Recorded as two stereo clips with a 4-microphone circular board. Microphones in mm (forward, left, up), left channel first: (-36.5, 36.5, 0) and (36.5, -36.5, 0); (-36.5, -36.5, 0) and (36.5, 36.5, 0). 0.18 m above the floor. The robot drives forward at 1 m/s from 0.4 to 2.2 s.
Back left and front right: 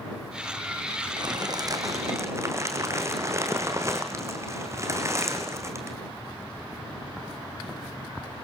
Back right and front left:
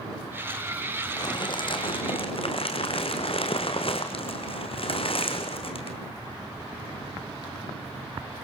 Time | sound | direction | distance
1.2 | crumpling | 90° right | 3 m